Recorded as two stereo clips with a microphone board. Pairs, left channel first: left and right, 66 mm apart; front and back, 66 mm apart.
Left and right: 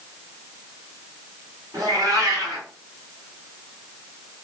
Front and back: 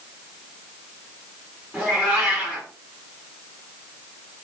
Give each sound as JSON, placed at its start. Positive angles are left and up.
{"t": 1.7, "sound": "a cat meowing", "azimuth_deg": -110, "distance_m": 1.5}